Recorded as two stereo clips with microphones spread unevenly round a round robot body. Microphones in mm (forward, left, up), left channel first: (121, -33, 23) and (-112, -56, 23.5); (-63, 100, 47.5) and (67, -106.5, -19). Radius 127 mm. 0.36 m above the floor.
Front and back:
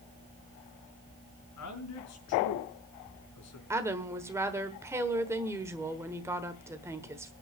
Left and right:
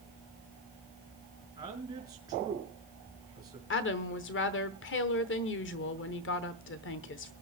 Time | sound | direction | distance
1.6 | a man speaking | 15° left | 4.5 m
3.7 | a woman speaking | 115° left | 1.2 m